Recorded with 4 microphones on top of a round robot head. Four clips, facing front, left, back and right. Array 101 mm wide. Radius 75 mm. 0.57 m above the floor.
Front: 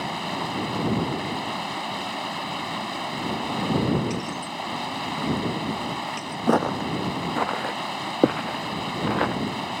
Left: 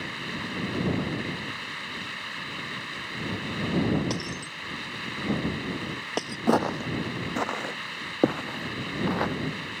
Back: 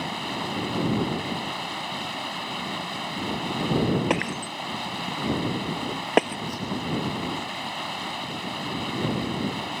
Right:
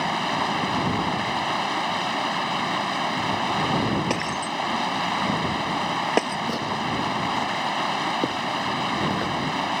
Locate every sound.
0.0 s running water: 75° right
4.1 s breaking glass: 155° right
6.5 s footsteps: 30° left; by 9.3 s 15° left